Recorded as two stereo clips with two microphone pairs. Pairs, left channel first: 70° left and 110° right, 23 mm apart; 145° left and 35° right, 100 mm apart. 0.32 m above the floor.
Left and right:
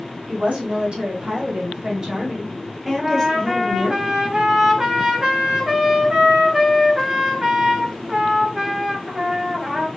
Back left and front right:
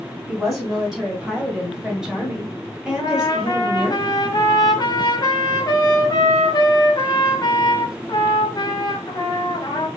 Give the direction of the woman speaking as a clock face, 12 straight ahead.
4 o'clock.